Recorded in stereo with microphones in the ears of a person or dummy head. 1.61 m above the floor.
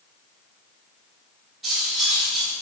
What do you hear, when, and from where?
1.6 s cutlery clinking: centre (ahead or behind), 1.2 m